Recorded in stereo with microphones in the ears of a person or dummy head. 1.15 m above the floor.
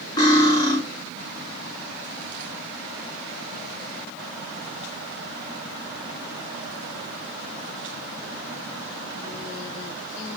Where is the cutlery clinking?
20° left (ahead or behind), 1.0 m.